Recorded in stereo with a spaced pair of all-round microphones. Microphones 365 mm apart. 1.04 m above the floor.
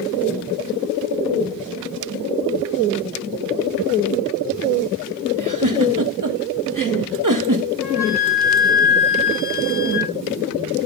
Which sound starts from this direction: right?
A giggle, at 5.4 s.